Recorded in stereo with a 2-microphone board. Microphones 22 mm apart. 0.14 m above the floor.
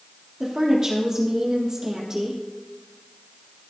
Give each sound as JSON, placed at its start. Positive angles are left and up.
{"t": 0.4, "sound": "a woman speaking", "side_deg": -30, "distance_m": 3.5}